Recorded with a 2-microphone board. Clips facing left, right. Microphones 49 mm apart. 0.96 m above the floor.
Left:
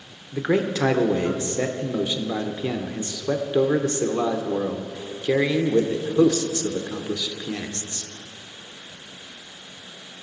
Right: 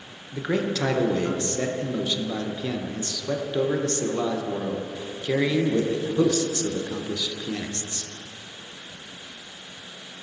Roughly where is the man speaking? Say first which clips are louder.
Left 3 dB; centre.